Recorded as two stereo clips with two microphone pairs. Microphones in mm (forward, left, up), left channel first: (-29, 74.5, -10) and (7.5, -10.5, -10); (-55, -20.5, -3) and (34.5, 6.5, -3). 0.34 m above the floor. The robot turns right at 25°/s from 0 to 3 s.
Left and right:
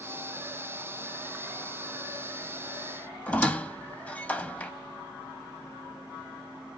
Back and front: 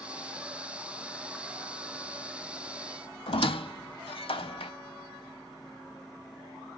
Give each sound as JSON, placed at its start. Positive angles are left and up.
{"t": 3.3, "sound": "a squeak", "azimuth_deg": -175, "distance_m": 0.5}